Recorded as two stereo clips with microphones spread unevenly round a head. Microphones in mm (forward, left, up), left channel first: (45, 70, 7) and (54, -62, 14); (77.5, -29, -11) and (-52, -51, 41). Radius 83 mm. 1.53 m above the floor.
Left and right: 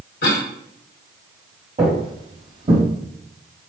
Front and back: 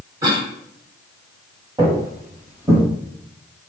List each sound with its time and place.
0.2 s a cough: 125° left, 1.5 m
1.8 s footsteps: 125° right, 3 m; by 2.8 s 110° right, 3 m